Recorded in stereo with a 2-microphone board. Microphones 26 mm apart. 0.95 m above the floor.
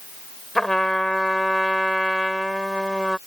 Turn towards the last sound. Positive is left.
turn(degrees=15)  # may be behind; listen again after turning